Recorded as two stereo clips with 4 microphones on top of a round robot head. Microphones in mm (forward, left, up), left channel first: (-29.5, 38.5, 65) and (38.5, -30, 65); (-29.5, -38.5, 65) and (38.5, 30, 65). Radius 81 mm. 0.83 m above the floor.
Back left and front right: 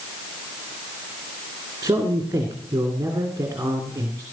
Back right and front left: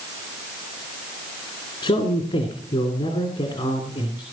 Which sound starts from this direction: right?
A man speaking, at 1.8 s.